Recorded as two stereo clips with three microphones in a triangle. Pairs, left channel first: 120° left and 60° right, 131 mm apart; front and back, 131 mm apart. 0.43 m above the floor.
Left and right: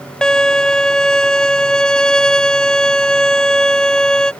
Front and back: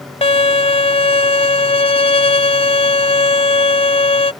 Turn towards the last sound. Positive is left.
turn(degrees=35)